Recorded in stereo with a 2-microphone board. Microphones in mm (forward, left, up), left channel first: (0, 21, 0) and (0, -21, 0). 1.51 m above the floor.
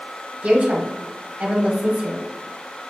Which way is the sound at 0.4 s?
25° right (ahead or behind).